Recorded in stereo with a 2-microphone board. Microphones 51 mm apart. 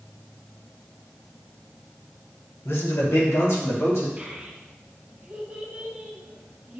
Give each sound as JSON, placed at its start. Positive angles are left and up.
{"t": 2.6, "sound": "a man speaking", "side_deg": 60, "distance_m": 1.1}
{"t": 4.2, "sound": "a child speaking", "side_deg": -35, "distance_m": 1.0}